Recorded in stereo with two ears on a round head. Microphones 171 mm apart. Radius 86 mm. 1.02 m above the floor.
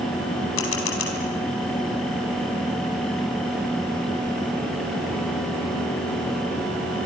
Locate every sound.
0.6 s a camera shutter: 80° left, 4 m